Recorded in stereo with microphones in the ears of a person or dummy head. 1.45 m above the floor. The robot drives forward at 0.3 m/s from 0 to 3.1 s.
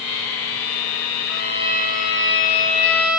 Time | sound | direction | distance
1.3 | a violin | 80° left | 3 m